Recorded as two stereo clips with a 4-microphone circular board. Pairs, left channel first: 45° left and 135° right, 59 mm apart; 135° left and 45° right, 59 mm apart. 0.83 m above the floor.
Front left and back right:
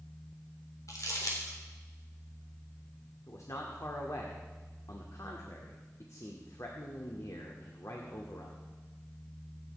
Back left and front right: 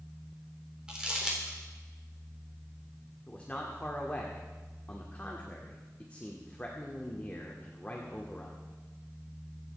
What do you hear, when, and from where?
0.9 s crumpling: 30° left, 3.5 m
3.3 s a man speaking: 70° left, 2.0 m